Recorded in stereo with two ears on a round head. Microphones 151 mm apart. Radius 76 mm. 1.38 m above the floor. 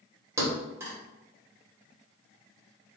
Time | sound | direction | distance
0.4 | a thud | 15° right (ahead or behind) | 1.1 m